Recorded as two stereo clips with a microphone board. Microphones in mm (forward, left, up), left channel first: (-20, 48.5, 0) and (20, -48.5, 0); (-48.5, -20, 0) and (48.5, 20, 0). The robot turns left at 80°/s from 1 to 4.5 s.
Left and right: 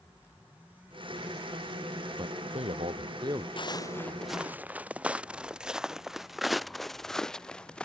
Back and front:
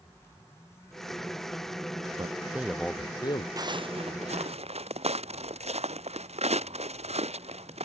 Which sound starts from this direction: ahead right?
A man speaking, at 2.2 s.